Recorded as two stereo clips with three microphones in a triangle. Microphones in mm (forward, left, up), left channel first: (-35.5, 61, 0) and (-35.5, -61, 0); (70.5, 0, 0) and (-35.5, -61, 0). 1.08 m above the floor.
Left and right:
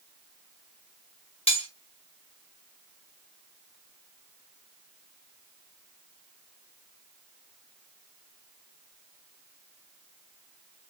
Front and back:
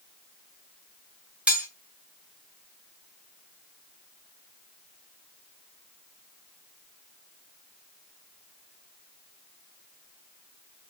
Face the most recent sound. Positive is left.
turn(degrees=130)